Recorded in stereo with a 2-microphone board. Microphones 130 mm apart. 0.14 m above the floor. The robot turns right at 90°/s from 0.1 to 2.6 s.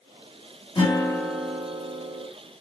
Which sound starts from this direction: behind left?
A guitar, at 0.8 s.